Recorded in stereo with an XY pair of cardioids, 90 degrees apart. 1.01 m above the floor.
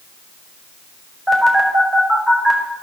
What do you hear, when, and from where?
1.3 s a phone buzzing: 20° right, 5 m